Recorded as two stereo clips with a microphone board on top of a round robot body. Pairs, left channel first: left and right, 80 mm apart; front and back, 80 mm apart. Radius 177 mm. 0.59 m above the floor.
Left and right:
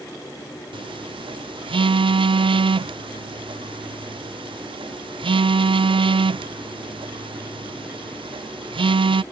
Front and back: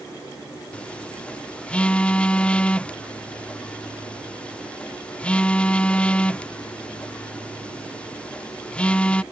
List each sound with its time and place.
0.7 s a phone buzzing: 75° right